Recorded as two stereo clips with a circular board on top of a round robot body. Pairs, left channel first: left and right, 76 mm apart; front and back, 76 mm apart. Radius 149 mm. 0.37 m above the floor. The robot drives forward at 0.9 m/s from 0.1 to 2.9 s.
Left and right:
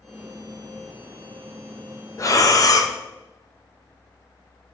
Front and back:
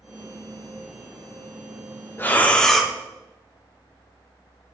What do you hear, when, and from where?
2.2 s breathing: 55° left, 1.3 m; by 2.9 s 95° left, 1.2 m